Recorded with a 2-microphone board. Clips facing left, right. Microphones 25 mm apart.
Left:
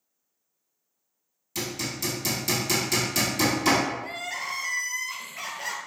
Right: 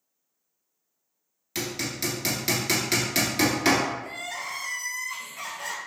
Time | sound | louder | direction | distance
1.6 | hammering | right 1 dB | 40° right (ahead or behind) | 1.2 m
4.0 | crying | left 2 dB | 25° left (ahead or behind) | 0.5 m